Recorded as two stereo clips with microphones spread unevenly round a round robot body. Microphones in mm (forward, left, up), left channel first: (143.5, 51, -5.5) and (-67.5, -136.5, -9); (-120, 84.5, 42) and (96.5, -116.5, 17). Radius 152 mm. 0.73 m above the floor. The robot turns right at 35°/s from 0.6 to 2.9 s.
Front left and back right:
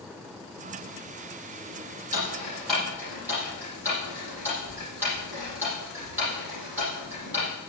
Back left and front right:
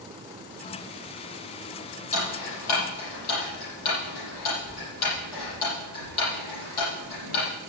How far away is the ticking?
About 7.5 m.